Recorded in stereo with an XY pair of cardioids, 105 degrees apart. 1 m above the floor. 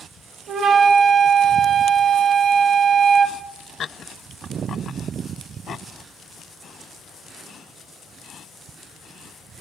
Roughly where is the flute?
Ahead right.